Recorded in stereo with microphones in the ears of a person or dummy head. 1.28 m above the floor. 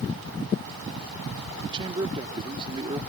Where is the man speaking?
20° right (ahead or behind).